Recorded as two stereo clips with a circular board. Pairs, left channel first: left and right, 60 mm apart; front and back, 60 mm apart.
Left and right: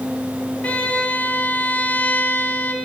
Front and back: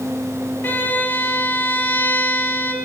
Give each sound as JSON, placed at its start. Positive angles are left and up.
{"t": 0.6, "sound": "a violin", "azimuth_deg": 35, "distance_m": 0.7}